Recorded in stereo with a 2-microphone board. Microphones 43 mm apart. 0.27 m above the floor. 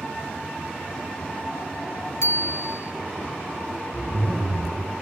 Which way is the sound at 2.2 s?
80° left.